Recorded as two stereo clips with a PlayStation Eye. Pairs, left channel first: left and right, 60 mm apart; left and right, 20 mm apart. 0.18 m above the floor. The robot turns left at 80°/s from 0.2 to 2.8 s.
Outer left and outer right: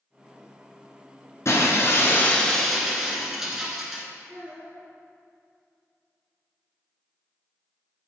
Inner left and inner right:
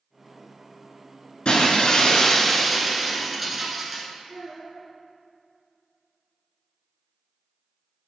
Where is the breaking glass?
100° left, 1.2 m; by 4.0 s 10° right, 1.2 m.